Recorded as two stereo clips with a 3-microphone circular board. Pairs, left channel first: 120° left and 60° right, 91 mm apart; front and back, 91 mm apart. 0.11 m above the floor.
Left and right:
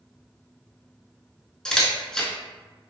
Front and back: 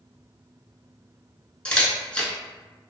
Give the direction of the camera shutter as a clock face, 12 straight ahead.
10 o'clock.